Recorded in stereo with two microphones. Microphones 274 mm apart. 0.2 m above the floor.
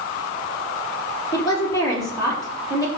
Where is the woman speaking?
15° left (ahead or behind), 3.5 m.